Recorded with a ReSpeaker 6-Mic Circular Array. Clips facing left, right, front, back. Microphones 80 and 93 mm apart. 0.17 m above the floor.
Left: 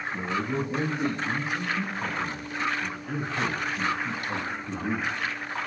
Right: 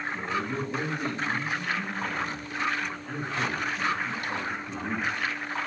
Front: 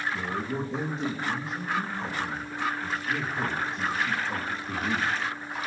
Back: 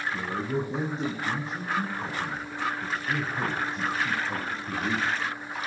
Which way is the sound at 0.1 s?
145° left.